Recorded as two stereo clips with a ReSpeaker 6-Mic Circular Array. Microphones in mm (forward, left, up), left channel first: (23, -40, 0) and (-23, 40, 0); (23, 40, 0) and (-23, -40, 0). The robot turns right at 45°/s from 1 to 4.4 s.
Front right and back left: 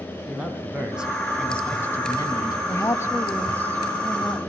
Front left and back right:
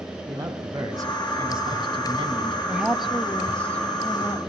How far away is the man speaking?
About 2.5 m.